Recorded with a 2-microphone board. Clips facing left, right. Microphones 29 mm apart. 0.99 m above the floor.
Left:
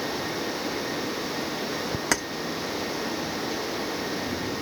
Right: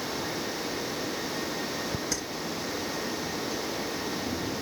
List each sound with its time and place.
2.1 s keys jangling: 80° left, 1.0 m